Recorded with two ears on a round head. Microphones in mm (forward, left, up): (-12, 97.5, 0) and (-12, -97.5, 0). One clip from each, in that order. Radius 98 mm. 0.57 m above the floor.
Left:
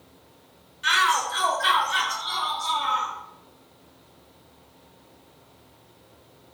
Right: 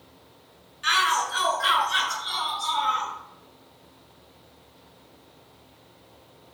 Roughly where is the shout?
Centre.